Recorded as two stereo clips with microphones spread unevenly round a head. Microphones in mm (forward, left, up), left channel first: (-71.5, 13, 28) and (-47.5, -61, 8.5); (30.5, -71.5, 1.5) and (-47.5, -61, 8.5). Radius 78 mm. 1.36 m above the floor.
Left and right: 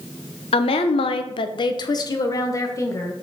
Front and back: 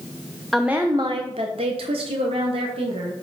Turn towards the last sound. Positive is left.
turn(degrees=165)